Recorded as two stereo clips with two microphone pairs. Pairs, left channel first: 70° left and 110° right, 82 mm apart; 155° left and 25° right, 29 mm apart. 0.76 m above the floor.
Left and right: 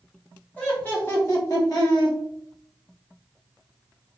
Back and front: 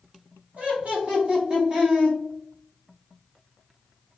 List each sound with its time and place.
0.6 s laughter: straight ahead, 1.7 m; by 2.2 s 35° left, 1.8 m